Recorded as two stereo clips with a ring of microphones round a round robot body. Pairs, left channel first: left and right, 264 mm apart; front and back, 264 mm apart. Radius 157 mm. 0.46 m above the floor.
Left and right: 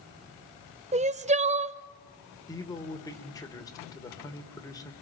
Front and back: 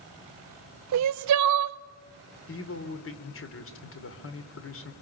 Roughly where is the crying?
Behind right.